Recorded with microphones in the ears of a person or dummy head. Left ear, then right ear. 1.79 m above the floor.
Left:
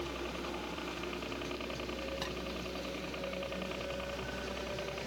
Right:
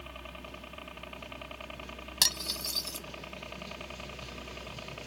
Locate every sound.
0.0 s a helicopter: 5° right (ahead or behind); by 5.1 s 10° right (ahead or behind)
2.2 s cutlery clinking: 80° right